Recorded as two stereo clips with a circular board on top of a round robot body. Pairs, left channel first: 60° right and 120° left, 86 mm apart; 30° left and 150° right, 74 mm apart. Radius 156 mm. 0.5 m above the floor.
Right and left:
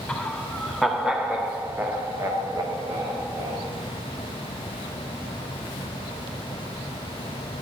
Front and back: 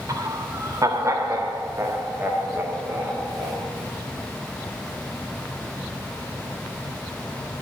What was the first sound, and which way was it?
Laughter, 135° right.